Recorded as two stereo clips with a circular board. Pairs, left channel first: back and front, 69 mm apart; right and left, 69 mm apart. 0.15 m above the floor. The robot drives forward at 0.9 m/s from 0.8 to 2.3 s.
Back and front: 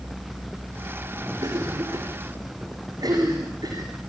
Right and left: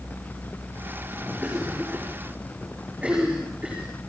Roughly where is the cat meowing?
No cat meowing in this recording.